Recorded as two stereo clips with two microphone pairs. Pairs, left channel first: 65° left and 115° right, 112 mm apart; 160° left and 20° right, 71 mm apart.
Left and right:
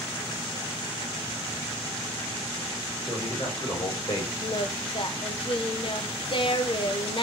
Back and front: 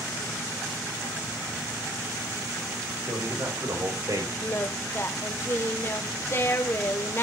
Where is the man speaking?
5° left, 4.5 m; by 4.3 s 20° left, 4.5 m.